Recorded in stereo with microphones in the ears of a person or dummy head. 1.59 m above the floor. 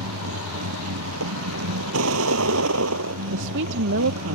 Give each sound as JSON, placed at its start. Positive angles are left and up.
{"t": 0.0, "sound": "a vehicle", "side_deg": -75}
{"t": 3.3, "sound": "a woman speaking", "side_deg": -65}